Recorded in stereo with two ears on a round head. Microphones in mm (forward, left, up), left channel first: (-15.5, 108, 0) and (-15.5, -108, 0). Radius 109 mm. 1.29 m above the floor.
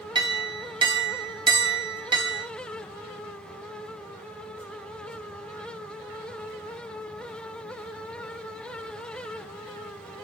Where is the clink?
20° right (ahead or behind), 0.9 m.